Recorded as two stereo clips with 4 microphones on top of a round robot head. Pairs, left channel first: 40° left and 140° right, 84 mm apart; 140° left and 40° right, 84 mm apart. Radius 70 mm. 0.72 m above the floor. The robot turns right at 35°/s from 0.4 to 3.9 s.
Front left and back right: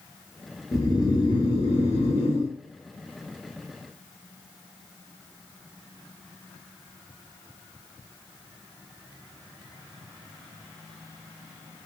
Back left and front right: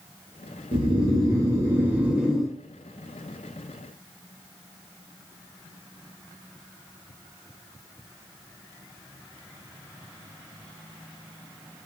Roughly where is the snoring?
Ahead.